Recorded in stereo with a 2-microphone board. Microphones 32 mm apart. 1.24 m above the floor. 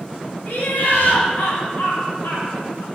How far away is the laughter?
About 1.0 m.